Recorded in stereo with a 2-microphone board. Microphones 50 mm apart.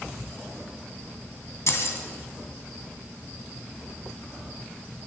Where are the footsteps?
I don't hear footsteps.